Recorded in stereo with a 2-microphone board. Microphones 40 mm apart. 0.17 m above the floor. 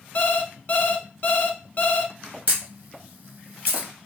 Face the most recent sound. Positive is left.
turn(degrees=-50)  # may be behind; listen again after turning